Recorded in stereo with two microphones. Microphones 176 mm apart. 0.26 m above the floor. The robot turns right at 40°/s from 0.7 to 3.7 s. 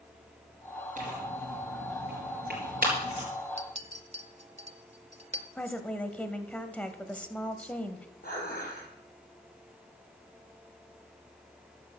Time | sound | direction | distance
1.0 | tearing paper | 45° right (ahead or behind) | 4.5 m
3.6 | a clink | 40° right (ahead or behind) | 0.7 m
5.5 | a woman speaking | 10° left (ahead or behind) | 1.0 m
8.2 | dishes clattering | 55° left (ahead or behind) | 5 m